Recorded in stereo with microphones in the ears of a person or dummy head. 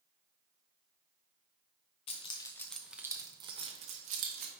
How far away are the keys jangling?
About 0.6 m.